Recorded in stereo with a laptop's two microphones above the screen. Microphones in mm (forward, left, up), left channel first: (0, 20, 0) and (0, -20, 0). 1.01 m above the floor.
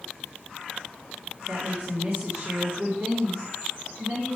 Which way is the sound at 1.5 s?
80° right.